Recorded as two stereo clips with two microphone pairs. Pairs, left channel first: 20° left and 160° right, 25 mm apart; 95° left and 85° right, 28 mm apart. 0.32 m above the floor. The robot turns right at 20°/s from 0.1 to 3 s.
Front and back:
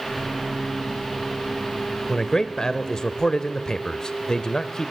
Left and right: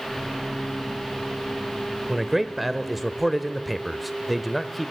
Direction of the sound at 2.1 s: 10° right.